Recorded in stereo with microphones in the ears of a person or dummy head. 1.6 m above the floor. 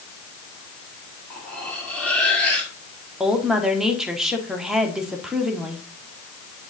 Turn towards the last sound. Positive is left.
turn(degrees=-5)  # may be behind; listen again after turning